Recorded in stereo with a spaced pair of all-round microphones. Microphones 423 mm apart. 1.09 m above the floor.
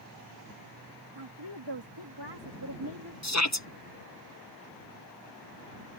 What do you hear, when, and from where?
1.1 s a woman speaking: 80° right; by 3.1 s 45° right (ahead or behind)
3.2 s a shout: 40° left (ahead or behind)